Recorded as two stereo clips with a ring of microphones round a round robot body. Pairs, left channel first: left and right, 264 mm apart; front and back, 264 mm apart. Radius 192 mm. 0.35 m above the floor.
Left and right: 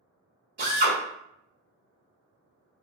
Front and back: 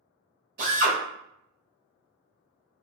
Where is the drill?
135° right, 1.2 m.